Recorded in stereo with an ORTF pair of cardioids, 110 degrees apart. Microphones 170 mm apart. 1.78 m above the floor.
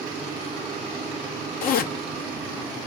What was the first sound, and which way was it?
A zipper, 70° left.